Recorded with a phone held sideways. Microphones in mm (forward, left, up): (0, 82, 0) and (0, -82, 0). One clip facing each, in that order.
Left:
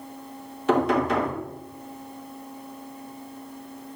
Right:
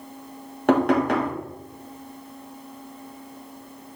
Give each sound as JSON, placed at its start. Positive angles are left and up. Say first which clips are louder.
{"t": 0.7, "sound": "knocking", "louder": "right 2 dB", "side_deg": -60, "distance_m": 2.0}